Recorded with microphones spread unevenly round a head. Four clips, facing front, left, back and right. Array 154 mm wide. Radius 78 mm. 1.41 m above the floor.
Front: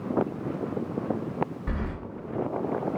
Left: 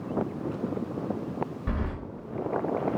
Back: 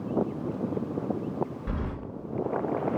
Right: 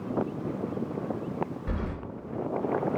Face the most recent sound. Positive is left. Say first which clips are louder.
# left 1 dB, front 1 dB
turn(degrees=75)